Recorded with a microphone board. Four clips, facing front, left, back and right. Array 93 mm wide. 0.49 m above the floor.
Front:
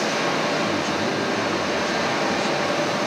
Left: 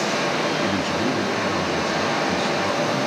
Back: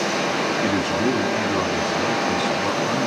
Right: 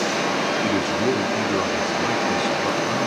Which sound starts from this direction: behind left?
A man speaking, at 0.6 s.